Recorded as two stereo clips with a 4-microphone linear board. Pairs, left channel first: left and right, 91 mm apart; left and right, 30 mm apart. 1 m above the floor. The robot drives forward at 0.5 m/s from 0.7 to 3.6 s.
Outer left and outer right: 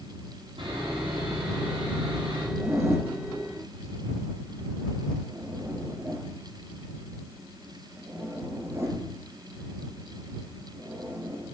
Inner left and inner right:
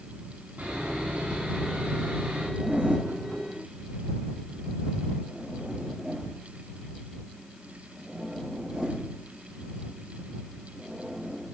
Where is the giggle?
I don't hear a giggle.